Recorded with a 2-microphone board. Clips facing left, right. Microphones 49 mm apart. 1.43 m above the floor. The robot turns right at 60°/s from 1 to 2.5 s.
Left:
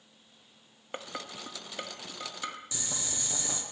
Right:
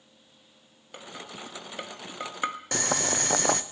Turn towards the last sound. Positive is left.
turn(degrees=-60)  # may be behind; listen again after turning